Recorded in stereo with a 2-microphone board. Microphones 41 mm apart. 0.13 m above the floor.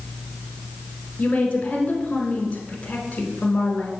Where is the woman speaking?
25° left (ahead or behind), 1.1 m.